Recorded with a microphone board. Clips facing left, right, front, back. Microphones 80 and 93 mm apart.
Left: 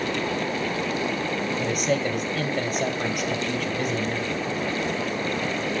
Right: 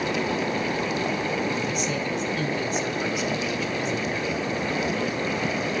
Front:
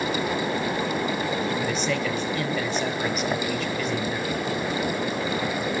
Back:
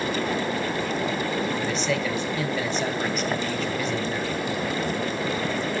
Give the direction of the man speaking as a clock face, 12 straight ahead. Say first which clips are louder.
Left 3 dB, even; 9 o'clock.